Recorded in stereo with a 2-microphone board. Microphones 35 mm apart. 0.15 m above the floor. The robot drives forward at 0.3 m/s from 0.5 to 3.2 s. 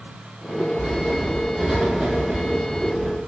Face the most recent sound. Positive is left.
turn(degrees=-10)  # may be behind; listen again after turning